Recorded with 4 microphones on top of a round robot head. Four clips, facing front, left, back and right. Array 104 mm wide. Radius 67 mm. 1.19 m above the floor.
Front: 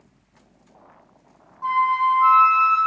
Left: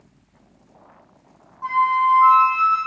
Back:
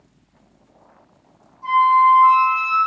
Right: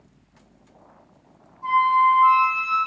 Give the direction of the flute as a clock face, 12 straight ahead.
10 o'clock.